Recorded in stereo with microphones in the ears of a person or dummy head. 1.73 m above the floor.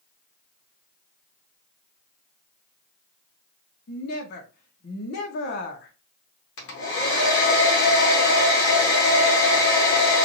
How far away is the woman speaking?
About 1.1 m.